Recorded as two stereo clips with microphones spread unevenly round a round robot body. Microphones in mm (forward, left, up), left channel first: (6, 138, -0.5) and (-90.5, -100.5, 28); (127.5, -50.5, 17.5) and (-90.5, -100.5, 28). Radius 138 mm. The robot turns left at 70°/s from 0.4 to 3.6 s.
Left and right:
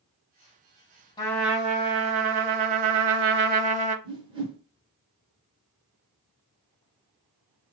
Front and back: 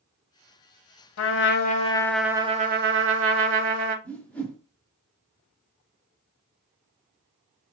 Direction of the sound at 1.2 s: 5° right.